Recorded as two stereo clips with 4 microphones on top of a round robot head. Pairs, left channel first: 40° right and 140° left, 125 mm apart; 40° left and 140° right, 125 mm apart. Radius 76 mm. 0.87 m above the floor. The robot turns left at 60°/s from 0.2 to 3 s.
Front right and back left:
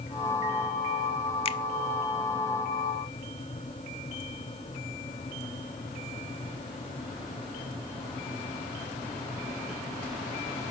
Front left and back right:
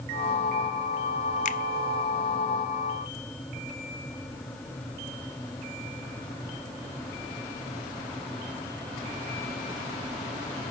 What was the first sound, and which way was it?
A finger snap, 10° left.